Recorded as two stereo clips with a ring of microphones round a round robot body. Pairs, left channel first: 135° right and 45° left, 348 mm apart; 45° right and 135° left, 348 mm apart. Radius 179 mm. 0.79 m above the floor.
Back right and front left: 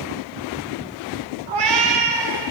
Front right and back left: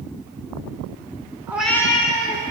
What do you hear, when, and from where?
1.5 s a cat meowing: 55° left, 1.3 m; by 2.5 s 15° left, 1.8 m